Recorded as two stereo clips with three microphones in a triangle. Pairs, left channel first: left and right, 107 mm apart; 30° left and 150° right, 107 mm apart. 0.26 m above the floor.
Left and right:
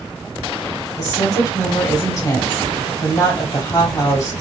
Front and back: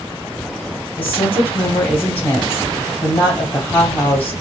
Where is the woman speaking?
85° left, 1.8 m.